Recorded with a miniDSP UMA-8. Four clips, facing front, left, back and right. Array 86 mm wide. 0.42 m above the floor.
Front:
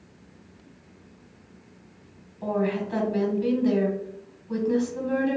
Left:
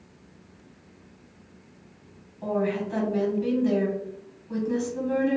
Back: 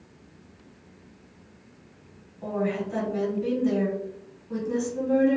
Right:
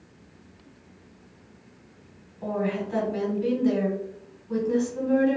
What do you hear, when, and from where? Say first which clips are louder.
2.4 s a woman speaking: left 1 dB, front 2 dB; 15° right, 1.3 m